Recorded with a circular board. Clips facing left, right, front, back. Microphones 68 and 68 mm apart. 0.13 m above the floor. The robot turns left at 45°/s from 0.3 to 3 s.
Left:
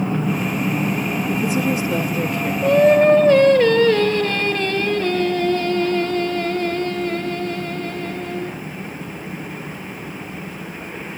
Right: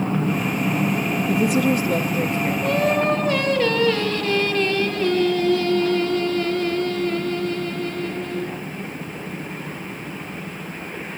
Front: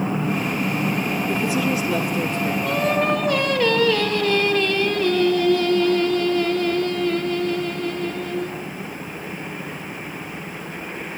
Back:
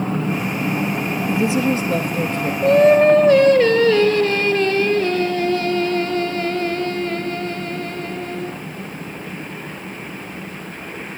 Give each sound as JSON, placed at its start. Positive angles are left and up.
{"t": 1.3, "sound": "a woman speaking", "azimuth_deg": -105, "distance_m": 3.5}
{"t": 2.6, "sound": "singing", "azimuth_deg": 160, "distance_m": 3.0}